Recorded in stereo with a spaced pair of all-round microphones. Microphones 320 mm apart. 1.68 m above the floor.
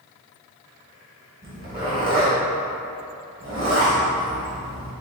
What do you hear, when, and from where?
1.4 s a zipper: 25° right (ahead or behind), 1.6 m